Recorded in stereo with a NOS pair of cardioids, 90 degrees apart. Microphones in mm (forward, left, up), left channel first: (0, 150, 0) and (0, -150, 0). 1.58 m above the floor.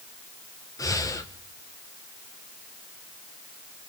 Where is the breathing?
10° left, 1.3 m.